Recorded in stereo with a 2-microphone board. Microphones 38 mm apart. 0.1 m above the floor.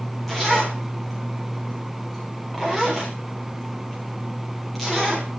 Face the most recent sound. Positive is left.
turn(degrees=0)  # may be behind; listen again after turning